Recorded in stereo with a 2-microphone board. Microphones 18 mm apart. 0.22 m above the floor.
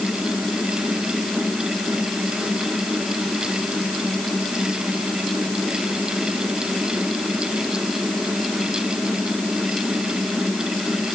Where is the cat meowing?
No cat meowing in this recording.